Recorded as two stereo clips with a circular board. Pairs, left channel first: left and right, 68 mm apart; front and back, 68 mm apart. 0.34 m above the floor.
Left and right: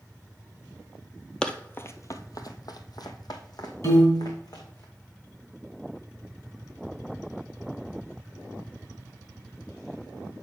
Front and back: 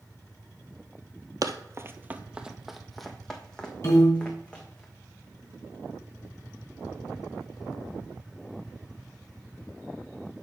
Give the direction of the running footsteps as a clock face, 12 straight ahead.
7 o'clock.